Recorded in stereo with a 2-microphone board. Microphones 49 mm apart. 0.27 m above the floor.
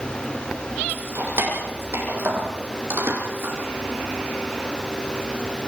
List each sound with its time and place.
0.9 s keys jangling: 65° right (ahead or behind), 7.5 m